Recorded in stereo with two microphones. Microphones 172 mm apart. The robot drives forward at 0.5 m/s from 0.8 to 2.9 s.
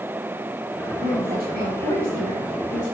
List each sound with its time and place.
1.0 s a woman speaking: 60° right (ahead or behind), 2 m; by 3.0 s 45° right (ahead or behind), 2.5 m